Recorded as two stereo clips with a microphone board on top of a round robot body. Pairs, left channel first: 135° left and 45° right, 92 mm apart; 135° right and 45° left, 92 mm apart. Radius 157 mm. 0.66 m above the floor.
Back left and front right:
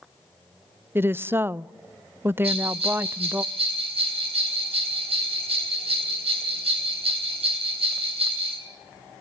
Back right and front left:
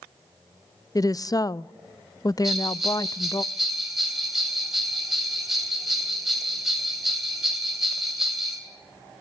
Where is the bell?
40° right, 8 m.